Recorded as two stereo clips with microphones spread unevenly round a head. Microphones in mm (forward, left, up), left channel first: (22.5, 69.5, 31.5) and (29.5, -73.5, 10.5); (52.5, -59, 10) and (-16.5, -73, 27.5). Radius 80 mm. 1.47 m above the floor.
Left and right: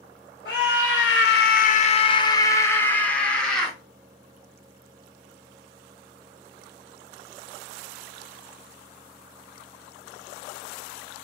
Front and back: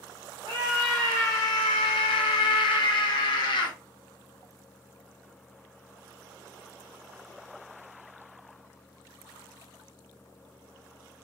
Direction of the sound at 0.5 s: 125° left.